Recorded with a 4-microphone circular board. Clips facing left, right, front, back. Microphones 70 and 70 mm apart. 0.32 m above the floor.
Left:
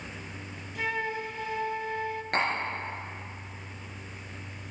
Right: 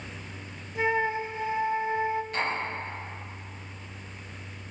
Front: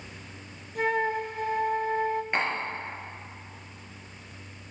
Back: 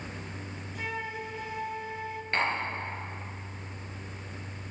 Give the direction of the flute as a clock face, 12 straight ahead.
1 o'clock.